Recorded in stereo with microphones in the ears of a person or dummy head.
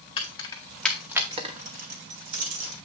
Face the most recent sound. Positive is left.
turn(degrees=-75)  # may be behind; listen again after turning